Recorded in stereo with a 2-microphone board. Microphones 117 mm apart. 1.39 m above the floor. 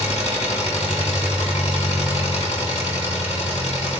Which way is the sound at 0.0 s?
70° left (ahead or behind).